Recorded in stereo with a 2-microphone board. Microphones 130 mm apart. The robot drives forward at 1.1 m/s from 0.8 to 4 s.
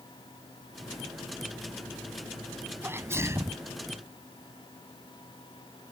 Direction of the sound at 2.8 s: 15° right (ahead or behind).